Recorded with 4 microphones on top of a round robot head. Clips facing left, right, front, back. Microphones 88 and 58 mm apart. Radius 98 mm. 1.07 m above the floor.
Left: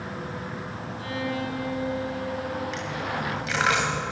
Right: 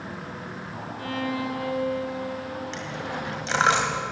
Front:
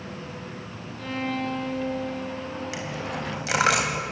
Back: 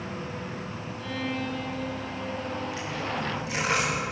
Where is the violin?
45° right, 3 m.